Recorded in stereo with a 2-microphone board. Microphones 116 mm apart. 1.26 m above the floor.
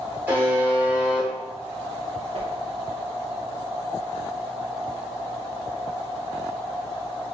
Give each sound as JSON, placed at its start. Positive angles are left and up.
{"t": 0.3, "sound": "a buzzer", "side_deg": -15, "distance_m": 1.1}
{"t": 2.3, "sound": "a whoosh", "side_deg": -55, "distance_m": 0.7}